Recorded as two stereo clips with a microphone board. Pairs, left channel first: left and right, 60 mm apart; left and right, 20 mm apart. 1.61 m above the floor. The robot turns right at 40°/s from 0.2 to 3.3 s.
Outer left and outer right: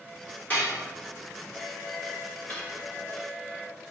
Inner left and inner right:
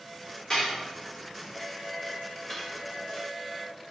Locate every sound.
0.5 s dishes clattering: 25° left (ahead or behind), 3 m; by 0.8 s 40° left (ahead or behind), 3 m
2.5 s cutlery clinking: 25° left (ahead or behind), 1.6 m; by 2.8 s 35° left (ahead or behind), 1.6 m